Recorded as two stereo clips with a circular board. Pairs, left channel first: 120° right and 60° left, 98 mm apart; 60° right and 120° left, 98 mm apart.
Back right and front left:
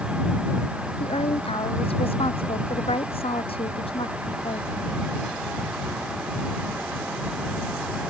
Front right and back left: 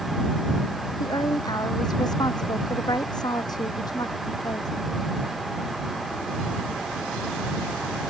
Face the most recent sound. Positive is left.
turn(degrees=-105)